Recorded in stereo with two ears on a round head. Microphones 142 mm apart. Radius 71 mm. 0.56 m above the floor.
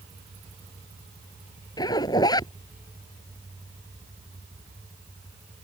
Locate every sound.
1.8 s a zipper: 25° left (ahead or behind)